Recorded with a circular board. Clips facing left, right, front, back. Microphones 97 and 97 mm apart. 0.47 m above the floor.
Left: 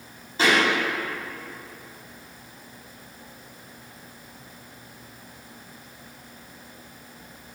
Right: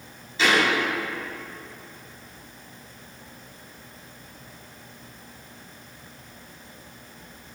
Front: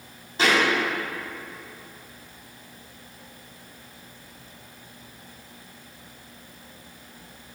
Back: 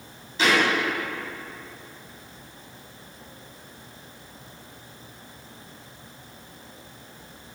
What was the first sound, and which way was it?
A thud, 45° left.